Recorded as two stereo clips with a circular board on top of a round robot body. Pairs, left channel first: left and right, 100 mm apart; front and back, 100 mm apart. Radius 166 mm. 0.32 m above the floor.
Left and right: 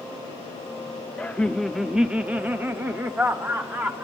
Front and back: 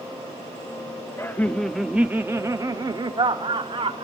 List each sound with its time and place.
1.2 s laughter: 30° left, 1.0 m; by 4.1 s 150° right, 1.9 m